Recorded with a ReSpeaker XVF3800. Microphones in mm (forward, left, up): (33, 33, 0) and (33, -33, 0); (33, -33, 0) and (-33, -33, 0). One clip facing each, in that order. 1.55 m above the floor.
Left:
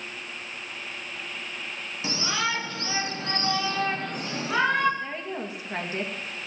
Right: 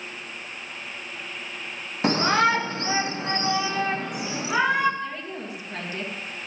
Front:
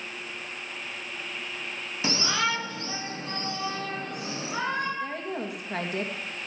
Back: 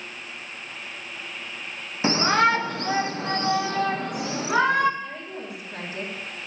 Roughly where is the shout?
Behind right.